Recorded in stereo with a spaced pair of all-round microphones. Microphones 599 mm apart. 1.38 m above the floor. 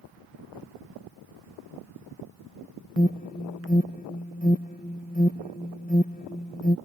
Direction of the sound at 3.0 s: 15° left (ahead or behind).